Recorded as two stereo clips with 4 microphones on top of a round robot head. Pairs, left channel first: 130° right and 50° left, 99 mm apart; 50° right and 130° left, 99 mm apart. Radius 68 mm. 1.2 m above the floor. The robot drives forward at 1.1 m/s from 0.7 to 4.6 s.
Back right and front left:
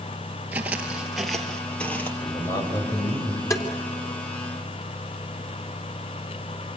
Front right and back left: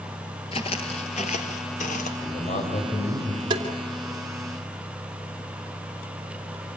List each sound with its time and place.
0.5 s footsteps: 20° right, 1.6 m; by 2.1 s 55° right, 2 m
2.2 s a man speaking: 60° right, 5.5 m; by 3.4 s 75° right, 5 m
3.5 s tapping: 175° left, 3 m